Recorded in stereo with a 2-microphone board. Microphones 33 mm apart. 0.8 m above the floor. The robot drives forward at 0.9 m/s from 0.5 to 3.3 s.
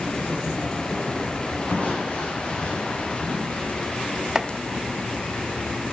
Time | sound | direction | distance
1.7 | crushing | 55° left (ahead or behind) | 6.5 m
4.3 | chopping | 20° right (ahead or behind) | 0.5 m